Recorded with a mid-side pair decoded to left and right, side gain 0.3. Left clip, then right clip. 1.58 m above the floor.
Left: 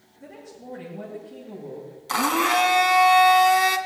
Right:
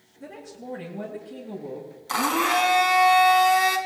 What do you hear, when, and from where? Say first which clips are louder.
0.2 s a woman speaking: right 2 dB; 50° right, 8 m
2.1 s a blender: left 1 dB; 15° left, 2 m